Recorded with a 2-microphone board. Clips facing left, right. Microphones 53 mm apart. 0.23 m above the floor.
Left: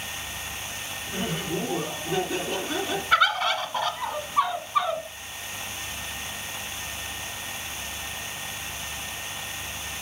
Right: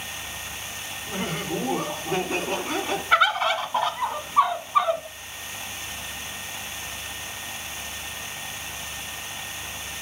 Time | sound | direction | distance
1.1 | laughter | 55° right (ahead or behind) | 2.5 m
3.1 | a bird | 15° right (ahead or behind) | 0.9 m